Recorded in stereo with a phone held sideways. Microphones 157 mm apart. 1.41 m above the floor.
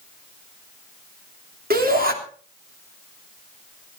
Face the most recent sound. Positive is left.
turn(degrees=-75)  # may be behind; listen again after turning